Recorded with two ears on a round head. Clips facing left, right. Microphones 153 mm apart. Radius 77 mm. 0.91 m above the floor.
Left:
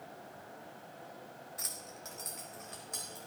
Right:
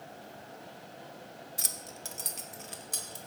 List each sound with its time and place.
1.6 s keys jangling: 35° right (ahead or behind), 1.0 m